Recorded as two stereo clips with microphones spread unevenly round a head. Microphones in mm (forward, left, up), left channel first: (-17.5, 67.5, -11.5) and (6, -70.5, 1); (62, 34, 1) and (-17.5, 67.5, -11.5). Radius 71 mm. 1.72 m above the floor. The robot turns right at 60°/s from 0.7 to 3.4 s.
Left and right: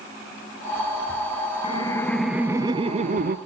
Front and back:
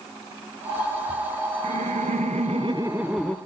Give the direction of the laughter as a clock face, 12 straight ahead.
7 o'clock.